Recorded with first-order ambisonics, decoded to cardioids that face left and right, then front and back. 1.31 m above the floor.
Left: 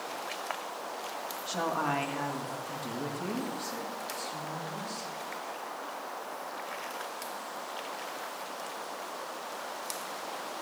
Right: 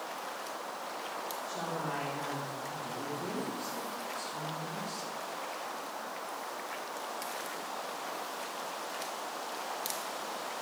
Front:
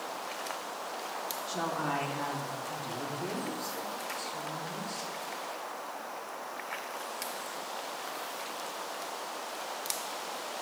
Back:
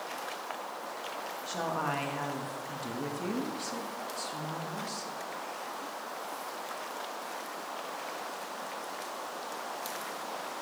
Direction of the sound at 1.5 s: 120° left.